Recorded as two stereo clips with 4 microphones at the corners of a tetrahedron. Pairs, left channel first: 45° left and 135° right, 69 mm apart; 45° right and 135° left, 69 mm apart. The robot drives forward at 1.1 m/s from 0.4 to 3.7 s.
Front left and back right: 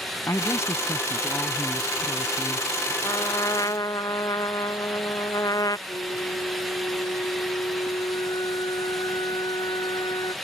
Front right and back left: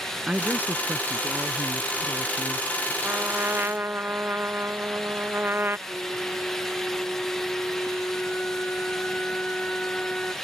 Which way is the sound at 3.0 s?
70° left.